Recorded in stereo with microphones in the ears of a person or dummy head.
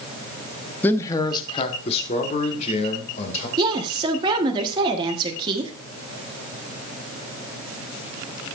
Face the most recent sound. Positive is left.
turn(degrees=-20)  # may be behind; listen again after turning